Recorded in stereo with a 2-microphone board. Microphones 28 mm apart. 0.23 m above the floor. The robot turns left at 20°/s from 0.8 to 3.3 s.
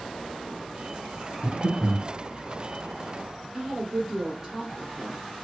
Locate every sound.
1.4 s breathing: 25° right (ahead or behind), 1.1 m; by 2.0 s 20° right (ahead or behind), 1.1 m
3.5 s a woman speaking: 20° right (ahead or behind), 1.1 m